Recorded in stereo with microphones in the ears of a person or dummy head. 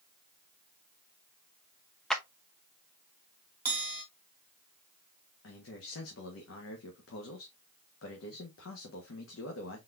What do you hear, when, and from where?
2.1 s a clap: 5° left (ahead or behind), 0.7 m
3.6 s a bell: 10° right (ahead or behind), 1.5 m
5.4 s a man speaking: 70° left (ahead or behind), 1.3 m